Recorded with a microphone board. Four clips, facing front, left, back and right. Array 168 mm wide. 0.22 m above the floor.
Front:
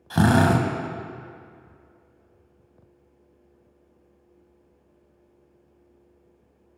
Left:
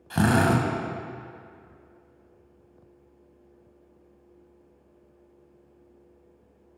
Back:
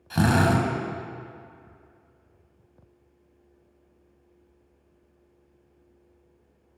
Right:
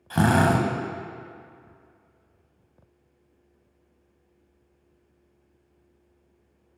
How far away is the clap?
No clap in this recording.